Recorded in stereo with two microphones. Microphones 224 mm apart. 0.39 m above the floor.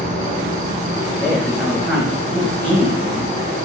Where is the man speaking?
5° right (ahead or behind), 1.9 m.